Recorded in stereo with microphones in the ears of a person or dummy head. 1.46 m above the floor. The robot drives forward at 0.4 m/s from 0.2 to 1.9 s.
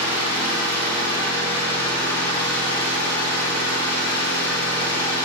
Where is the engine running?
15° left (ahead or behind), 5 m.